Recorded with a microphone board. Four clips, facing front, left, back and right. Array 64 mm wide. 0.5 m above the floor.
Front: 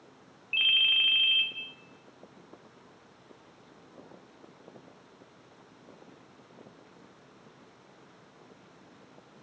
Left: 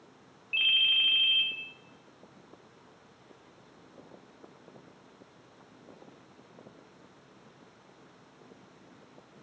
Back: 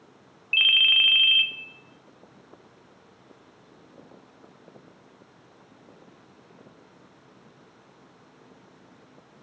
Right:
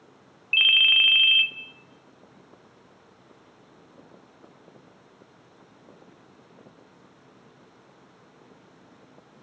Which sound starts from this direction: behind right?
A ringtone, at 0.5 s.